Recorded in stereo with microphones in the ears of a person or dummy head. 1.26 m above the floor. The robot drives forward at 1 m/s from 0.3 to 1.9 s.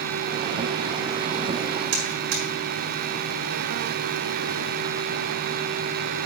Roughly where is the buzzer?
Right.